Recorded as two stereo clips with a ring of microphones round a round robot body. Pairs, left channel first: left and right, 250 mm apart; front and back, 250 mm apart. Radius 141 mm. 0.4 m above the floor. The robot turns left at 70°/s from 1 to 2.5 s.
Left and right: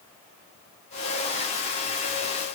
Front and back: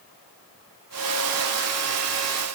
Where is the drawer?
No drawer in this recording.